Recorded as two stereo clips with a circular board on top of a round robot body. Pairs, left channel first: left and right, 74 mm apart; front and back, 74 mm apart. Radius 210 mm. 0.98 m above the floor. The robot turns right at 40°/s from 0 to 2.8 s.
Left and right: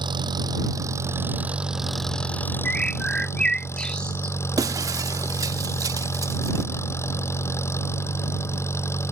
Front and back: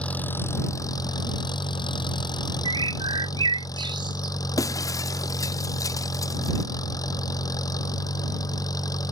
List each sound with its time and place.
0.0 s an engine running: 75° right; by 9.1 s 35° left
2.6 s a bird: 165° left; by 4.3 s 170° left
4.6 s breaking glass: 45° right